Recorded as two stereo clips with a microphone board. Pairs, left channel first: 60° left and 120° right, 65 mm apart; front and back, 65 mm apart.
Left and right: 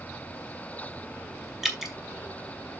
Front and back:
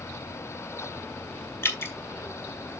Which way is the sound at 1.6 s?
35° right.